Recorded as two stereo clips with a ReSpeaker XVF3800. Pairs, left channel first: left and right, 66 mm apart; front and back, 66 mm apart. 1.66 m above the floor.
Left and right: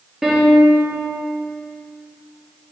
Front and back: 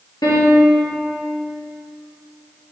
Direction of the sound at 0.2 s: 5° right.